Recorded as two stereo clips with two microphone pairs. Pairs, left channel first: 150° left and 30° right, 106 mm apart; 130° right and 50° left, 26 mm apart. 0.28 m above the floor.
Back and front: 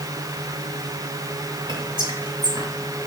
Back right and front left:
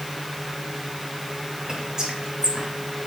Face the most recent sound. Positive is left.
turn(degrees=-5)